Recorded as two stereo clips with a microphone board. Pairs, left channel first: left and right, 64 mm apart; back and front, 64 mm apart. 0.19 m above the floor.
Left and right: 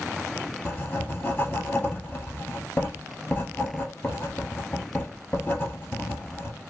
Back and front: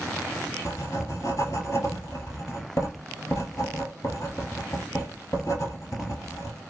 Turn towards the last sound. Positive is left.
turn(degrees=155)